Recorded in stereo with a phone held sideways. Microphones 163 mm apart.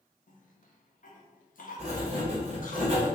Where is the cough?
60° left (ahead or behind), 0.7 m.